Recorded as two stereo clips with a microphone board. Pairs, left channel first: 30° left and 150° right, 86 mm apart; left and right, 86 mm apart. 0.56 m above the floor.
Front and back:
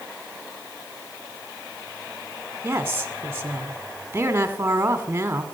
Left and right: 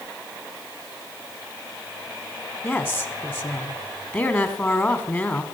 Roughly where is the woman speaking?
Behind left.